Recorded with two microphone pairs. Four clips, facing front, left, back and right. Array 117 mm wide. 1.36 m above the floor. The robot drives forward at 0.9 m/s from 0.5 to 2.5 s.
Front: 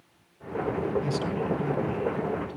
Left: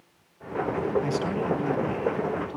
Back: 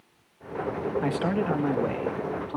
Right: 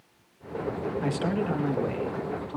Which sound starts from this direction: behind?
A man speaking, at 1.0 s.